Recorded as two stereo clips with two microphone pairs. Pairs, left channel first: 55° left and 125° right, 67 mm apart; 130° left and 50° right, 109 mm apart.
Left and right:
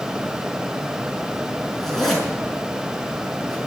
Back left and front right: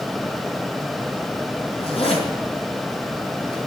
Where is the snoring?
I don't hear snoring.